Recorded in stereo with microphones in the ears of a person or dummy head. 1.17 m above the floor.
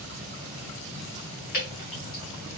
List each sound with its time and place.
1.5 s dripping: 50° left (ahead or behind), 1.7 m